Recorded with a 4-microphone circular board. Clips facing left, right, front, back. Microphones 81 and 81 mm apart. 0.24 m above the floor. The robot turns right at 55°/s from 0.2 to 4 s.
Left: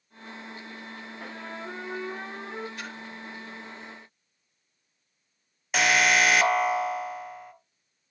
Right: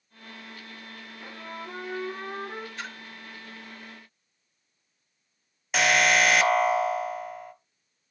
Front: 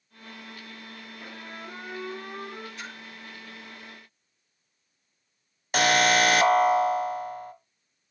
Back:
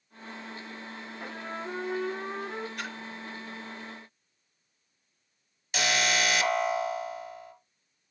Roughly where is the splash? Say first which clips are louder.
Even, back 3 dB; behind right.